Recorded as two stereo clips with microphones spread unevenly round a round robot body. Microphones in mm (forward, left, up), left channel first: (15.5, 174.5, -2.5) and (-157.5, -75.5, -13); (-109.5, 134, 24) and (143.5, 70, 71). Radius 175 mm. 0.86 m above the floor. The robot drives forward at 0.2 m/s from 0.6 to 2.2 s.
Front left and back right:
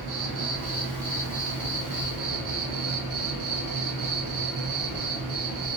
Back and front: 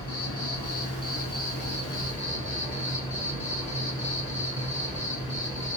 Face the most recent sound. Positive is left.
turn(degrees=-125)